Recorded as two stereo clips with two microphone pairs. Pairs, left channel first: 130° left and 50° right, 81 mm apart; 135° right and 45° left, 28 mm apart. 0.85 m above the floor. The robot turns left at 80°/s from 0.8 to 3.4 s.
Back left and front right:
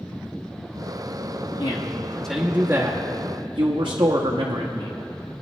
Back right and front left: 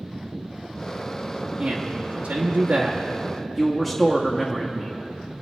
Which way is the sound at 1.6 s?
100° left.